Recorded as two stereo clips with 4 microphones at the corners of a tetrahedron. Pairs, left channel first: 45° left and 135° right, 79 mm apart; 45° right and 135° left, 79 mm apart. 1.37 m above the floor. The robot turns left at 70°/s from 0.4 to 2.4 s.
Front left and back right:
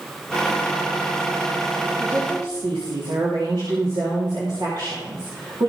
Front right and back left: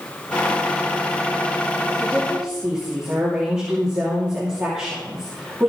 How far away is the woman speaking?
About 2.5 m.